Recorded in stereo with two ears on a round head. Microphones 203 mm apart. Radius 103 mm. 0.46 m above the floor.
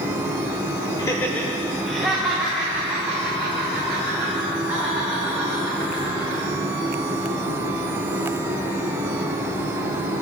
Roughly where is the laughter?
Centre.